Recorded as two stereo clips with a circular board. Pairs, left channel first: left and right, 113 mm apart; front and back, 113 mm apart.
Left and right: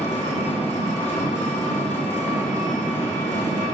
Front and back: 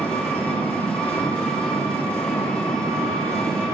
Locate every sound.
0.0 s an engine running: 80° left, 1.5 m